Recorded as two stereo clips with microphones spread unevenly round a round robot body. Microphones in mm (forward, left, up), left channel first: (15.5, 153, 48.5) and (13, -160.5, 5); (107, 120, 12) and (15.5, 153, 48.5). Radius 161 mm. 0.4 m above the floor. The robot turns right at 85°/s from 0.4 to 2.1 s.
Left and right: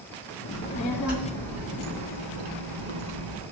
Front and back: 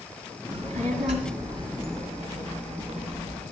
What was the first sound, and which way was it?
A child speaking, 135° left.